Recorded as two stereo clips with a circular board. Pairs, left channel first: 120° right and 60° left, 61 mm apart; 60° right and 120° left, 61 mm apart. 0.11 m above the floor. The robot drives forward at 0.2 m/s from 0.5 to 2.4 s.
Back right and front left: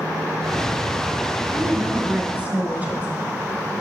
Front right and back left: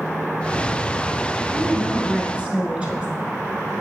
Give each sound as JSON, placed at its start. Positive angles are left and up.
{"t": 1.5, "sound": "a woman speaking", "azimuth_deg": 60, "distance_m": 1.3}